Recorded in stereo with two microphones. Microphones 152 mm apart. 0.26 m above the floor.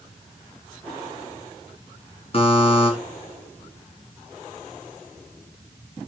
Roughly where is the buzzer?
Left.